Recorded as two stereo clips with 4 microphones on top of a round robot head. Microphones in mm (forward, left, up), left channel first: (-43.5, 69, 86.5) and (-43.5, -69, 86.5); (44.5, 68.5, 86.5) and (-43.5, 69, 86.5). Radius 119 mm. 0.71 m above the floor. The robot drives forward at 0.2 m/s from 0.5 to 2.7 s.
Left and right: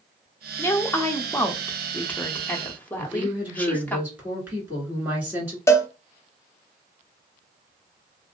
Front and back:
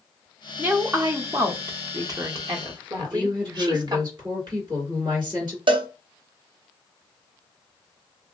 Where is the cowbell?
160° left, 0.6 m.